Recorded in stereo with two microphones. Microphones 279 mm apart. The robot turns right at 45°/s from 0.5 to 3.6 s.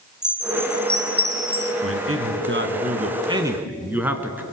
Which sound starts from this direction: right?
A man speaking, at 1.8 s.